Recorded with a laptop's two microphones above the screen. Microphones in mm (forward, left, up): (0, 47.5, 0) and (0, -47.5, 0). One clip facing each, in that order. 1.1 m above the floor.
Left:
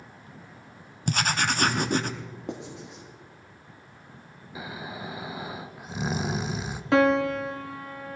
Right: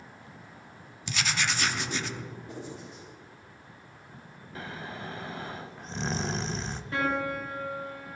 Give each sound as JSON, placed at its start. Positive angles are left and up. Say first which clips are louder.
{"t": 1.1, "sound": "writing", "louder": "left 5 dB", "side_deg": 45, "distance_m": 0.7}
{"t": 2.5, "sound": "writing", "louder": "left 3 dB", "side_deg": 75, "distance_m": 2.0}
{"t": 4.5, "sound": "snoring", "louder": "left 2 dB", "side_deg": 10, "distance_m": 0.6}
{"t": 6.9, "sound": "a piano", "louder": "left 9 dB", "side_deg": 80, "distance_m": 1.1}